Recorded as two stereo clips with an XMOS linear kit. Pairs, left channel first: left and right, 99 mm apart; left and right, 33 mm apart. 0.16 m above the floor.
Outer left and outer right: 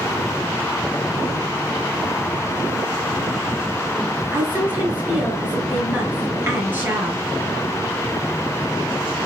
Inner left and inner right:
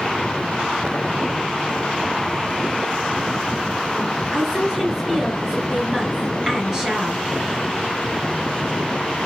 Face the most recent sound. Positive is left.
turn(degrees=-20)  # may be behind; listen again after turning